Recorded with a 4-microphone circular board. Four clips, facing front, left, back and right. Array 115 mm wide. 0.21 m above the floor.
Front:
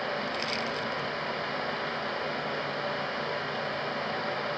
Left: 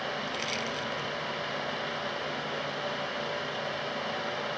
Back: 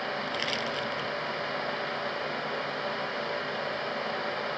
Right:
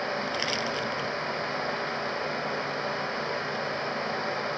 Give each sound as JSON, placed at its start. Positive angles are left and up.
{"t": 0.3, "sound": "crushing", "azimuth_deg": -125}